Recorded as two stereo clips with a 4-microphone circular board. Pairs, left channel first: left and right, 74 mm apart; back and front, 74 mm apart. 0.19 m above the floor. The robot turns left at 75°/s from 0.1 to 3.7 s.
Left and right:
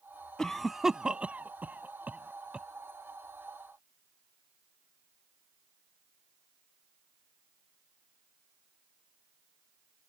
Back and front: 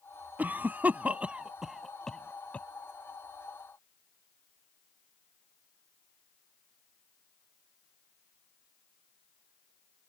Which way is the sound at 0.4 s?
20° left.